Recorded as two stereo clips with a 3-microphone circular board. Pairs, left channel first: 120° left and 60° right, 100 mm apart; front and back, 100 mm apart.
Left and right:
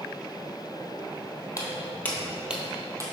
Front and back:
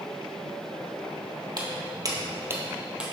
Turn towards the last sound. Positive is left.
turn(degrees=-105)